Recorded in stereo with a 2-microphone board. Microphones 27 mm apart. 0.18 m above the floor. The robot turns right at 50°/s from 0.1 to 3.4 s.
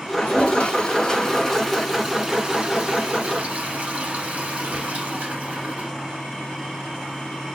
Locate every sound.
0.2 s a toilet flushing: 95° left, 0.9 m; by 5.9 s 105° right, 0.9 m